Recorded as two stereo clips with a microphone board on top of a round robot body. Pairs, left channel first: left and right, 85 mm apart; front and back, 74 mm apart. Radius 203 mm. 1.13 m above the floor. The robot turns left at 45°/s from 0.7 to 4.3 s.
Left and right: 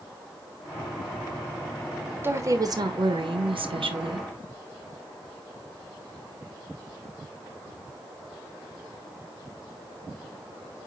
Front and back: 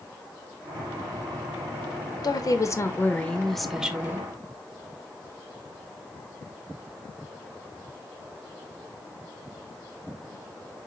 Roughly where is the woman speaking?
Ahead right.